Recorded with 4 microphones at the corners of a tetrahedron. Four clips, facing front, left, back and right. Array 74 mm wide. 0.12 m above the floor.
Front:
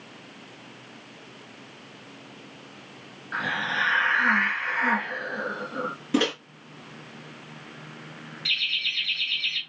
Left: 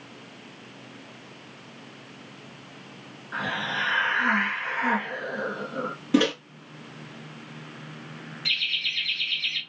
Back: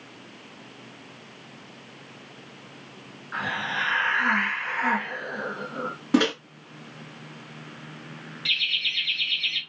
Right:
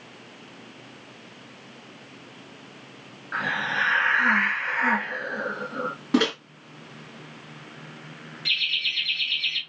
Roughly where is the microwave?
Behind right.